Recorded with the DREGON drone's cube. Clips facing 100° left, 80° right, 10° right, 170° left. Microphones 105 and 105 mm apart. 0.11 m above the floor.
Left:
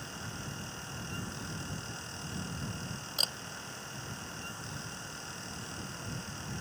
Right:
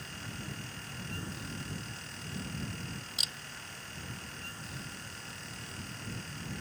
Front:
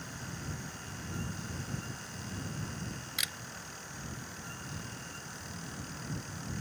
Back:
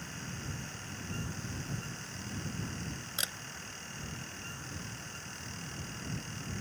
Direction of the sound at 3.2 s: 120° left.